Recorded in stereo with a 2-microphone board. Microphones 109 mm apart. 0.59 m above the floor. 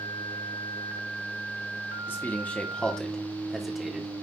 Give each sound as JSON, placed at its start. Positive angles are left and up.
{"t": 2.1, "sound": "a man speaking", "side_deg": 20, "distance_m": 1.1}